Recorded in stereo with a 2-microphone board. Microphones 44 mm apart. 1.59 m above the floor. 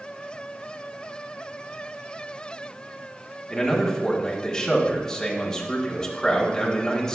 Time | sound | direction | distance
3.5 | a man speaking | 15° left (ahead or behind) | 1.4 m